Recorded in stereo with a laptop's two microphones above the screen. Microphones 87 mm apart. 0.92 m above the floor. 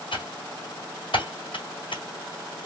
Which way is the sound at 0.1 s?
75° left (ahead or behind).